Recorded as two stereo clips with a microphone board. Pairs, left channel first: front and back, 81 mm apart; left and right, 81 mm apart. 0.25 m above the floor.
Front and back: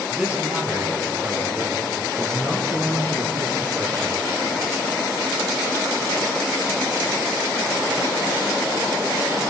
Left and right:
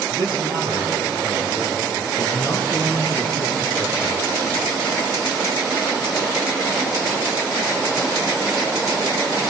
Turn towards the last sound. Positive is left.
turn(degrees=-165)